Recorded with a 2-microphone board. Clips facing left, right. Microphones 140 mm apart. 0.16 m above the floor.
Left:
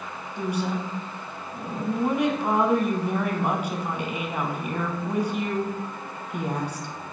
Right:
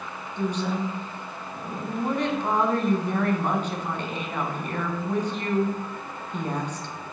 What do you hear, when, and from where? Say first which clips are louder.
0.4 s a woman speaking: right 1 dB; 10° left (ahead or behind), 1.0 m